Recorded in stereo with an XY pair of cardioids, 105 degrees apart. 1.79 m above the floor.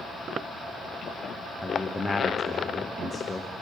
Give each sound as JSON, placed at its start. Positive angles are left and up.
{"t": 1.6, "sound": "a man speaking", "azimuth_deg": 15, "distance_m": 1.1}